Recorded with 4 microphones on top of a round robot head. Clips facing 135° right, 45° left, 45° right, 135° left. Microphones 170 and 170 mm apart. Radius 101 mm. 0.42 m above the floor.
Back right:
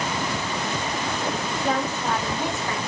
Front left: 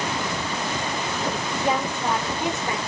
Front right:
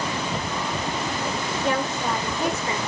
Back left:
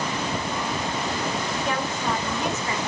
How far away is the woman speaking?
About 2 m.